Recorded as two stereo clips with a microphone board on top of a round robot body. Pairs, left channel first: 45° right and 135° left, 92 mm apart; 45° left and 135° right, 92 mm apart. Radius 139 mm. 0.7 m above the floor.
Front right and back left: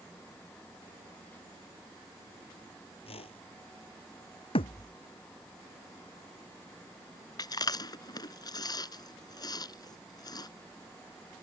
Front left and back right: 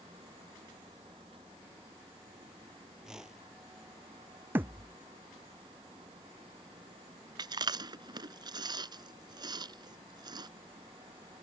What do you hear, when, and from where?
3.0 s a whoosh: 50° right
4.5 s a thud: 65° right
7.4 s chewing: 90° right